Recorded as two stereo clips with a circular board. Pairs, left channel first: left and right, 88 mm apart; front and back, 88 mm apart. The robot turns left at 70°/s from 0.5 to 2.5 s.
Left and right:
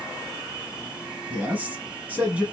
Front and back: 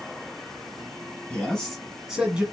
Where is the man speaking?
50° right, 1.0 m; by 2.4 s 130° right, 1.0 m.